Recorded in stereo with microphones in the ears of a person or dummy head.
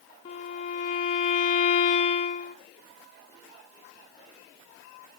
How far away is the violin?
About 0.7 m.